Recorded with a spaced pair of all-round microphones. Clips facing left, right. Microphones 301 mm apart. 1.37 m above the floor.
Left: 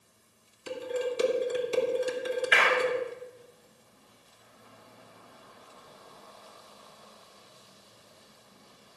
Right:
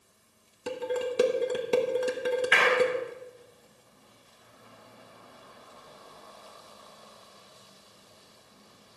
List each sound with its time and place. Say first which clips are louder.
0.7 s dishes clattering: right 1 dB; 65° right (ahead or behind), 1.3 m
2.5 s a clap: right 3 dB; 55° right (ahead or behind), 5 m